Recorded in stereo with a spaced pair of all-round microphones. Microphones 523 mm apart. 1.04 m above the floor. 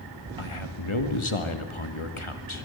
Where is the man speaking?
65° left (ahead or behind), 2.5 m.